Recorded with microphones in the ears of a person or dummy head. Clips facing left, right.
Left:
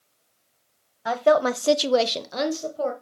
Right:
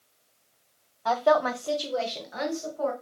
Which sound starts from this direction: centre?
A woman speaking, at 1.1 s.